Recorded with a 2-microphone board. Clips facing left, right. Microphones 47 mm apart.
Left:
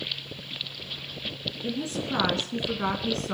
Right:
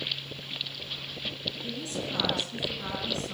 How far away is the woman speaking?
About 1.9 m.